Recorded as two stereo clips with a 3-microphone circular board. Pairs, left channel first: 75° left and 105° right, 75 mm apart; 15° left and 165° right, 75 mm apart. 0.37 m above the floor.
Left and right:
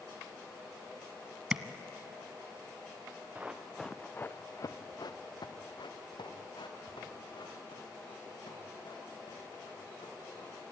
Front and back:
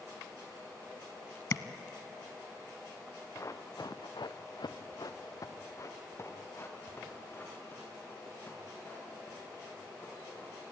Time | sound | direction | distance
1.5 | tapping | 30° right | 0.8 m
3.4 | running footsteps | 35° right | 1.6 m